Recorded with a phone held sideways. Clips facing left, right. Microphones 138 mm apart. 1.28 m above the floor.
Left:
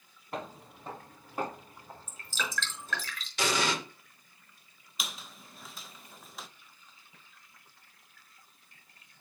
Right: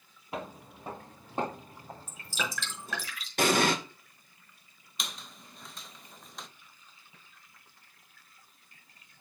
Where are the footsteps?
5° right (ahead or behind), 1.7 m; by 3.1 s 40° right (ahead or behind), 4 m.